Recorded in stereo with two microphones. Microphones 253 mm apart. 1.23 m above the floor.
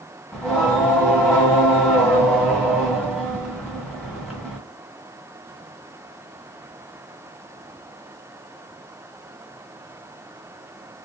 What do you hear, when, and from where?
0.3 s singing: centre (ahead or behind), 1.7 m